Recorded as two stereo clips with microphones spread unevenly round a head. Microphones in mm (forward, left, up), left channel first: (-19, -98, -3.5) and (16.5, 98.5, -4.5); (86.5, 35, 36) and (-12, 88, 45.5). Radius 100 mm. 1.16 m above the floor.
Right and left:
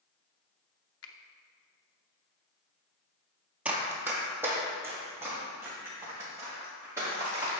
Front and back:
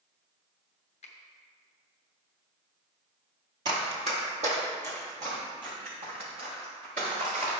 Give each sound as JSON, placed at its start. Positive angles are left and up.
{"t": 1.0, "sound": "a finger snap", "azimuth_deg": -75, "distance_m": 0.8}
{"t": 3.6, "sound": "running footsteps", "azimuth_deg": 160, "distance_m": 1.4}